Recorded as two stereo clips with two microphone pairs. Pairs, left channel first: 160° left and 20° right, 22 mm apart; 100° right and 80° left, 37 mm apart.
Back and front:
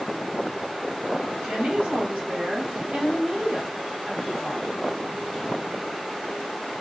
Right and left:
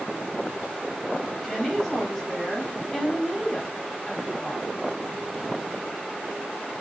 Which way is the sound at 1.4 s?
20° right.